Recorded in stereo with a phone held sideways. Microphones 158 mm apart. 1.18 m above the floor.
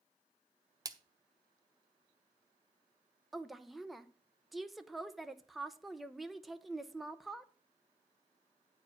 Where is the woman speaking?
Centre (ahead or behind), 0.7 m.